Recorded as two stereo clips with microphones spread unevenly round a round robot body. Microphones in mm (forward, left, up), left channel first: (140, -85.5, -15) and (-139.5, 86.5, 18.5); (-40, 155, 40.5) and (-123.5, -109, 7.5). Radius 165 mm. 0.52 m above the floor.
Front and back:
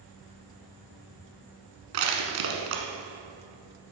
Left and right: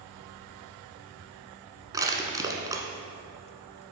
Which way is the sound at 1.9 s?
175° left.